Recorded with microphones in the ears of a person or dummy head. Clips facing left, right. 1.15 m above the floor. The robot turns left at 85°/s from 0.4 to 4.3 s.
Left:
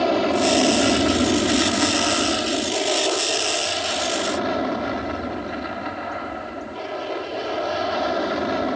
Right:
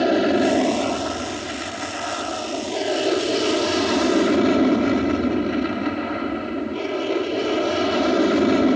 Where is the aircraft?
160° right; by 8.8 s 130° right.